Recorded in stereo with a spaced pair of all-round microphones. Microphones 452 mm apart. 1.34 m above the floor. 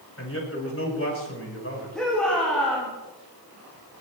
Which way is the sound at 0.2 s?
30° left (ahead or behind).